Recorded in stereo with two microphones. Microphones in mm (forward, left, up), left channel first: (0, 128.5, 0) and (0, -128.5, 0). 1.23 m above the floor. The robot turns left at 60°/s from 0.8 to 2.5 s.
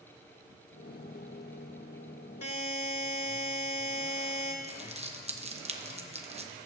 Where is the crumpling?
25° right (ahead or behind), 0.9 m.